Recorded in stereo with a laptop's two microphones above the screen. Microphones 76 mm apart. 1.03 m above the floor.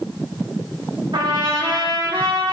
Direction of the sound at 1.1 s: 75° right (ahead or behind).